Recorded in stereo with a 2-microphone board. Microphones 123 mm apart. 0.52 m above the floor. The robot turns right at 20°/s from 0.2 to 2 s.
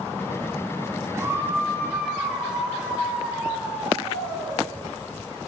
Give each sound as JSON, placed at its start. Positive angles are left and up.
{"t": 1.1, "sound": "a scream", "side_deg": -25, "distance_m": 10.0}